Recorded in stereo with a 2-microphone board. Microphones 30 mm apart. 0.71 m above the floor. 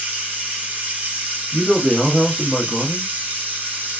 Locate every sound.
0.0 s running water: 55° right (ahead or behind), 1.2 m
1.5 s a man speaking: 20° left (ahead or behind), 1.0 m